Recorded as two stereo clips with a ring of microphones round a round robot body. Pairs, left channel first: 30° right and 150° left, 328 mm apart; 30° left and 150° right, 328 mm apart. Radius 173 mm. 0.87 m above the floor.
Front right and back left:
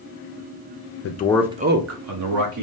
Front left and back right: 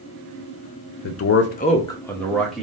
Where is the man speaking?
Straight ahead, 0.5 m; by 2.6 s 120° left, 1.3 m.